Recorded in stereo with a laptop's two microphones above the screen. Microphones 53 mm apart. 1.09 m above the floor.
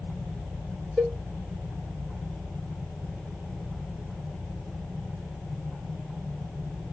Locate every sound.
1.0 s a cowbell: 10° right (ahead or behind), 4 m